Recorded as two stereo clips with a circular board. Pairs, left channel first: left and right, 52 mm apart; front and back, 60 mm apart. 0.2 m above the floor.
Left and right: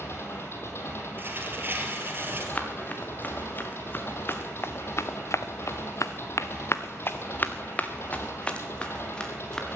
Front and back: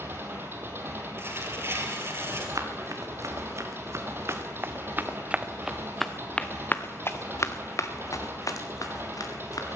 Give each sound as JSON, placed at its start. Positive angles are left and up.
{"t": 0.0, "sound": "an engine running", "azimuth_deg": 125, "distance_m": 2.5}
{"t": 1.2, "sound": "tearing paper", "azimuth_deg": -135, "distance_m": 3.0}
{"t": 2.5, "sound": "running footsteps", "azimuth_deg": 150, "distance_m": 2.5}